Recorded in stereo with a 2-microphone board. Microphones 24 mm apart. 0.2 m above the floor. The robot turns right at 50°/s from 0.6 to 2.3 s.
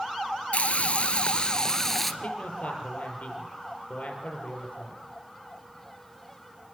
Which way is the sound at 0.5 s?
95° left.